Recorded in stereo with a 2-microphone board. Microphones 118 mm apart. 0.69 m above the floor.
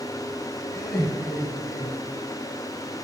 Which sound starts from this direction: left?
Laughter, at 0.7 s.